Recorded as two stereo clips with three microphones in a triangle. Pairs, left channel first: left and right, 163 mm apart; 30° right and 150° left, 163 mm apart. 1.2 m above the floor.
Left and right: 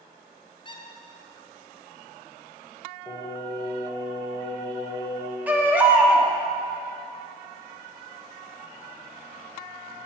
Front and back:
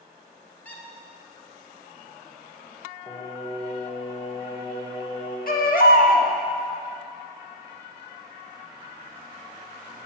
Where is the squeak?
45° left, 1.6 m.